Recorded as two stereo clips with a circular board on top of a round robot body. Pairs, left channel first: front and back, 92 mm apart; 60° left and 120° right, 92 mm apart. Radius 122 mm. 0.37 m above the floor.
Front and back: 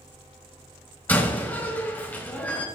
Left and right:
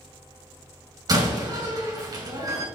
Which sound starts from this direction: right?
A door slam, at 1.1 s.